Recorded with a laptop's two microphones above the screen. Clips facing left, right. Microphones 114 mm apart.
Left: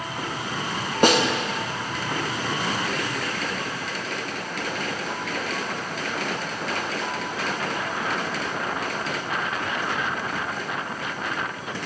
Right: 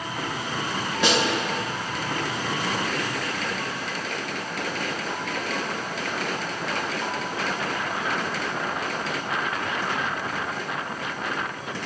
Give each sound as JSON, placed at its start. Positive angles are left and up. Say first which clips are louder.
{"t": 1.0, "sound": "a snare drum", "louder": "left 5 dB", "side_deg": 50, "distance_m": 0.6}